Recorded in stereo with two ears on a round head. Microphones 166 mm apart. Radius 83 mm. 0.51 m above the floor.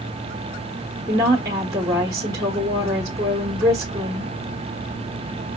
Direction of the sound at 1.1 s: 20° right (ahead or behind).